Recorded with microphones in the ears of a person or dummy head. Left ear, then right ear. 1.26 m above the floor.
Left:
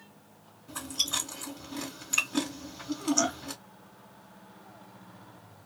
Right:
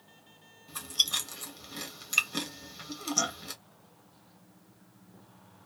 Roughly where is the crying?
I don't hear crying.